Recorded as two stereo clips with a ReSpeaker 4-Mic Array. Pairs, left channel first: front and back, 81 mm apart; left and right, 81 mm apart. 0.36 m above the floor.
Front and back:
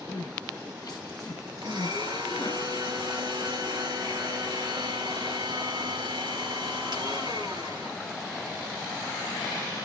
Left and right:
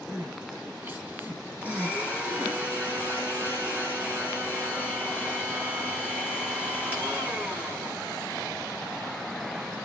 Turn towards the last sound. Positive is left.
turn(degrees=-160)